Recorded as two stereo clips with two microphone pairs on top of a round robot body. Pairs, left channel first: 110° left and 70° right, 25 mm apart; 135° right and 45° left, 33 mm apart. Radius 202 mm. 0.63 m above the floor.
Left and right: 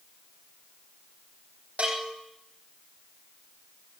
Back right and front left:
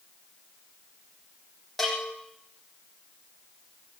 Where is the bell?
40° right, 9.5 m.